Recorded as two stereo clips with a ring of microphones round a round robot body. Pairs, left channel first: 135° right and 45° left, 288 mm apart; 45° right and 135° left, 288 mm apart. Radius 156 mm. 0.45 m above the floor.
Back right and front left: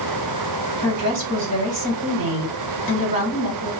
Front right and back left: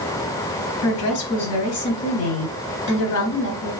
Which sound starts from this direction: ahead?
A woman speaking, at 0.8 s.